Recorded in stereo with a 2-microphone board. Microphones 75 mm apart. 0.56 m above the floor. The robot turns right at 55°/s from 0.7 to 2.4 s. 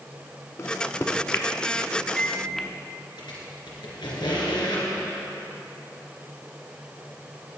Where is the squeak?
90° left, 2.5 m.